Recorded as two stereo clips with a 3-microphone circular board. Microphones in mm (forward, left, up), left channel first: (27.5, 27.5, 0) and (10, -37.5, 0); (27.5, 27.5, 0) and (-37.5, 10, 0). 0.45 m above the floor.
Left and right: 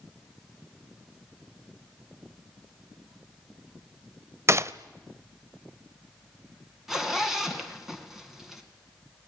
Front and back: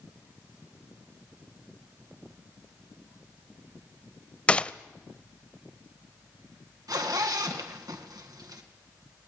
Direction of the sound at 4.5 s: 60° right.